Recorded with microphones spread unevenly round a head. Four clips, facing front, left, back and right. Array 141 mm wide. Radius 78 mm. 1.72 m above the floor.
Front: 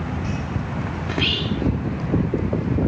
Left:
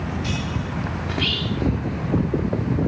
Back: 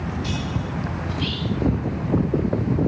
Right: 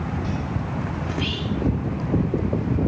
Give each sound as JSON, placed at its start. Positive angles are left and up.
{"t": 1.1, "sound": "whispering", "azimuth_deg": 20}